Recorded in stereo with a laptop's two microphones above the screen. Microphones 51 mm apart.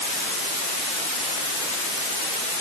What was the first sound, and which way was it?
Only background noise.